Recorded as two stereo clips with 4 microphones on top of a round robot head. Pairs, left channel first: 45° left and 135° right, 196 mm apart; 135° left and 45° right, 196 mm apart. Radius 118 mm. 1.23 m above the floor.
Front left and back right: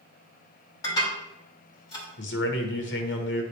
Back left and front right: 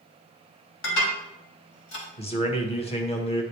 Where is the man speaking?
75° left, 1.6 m.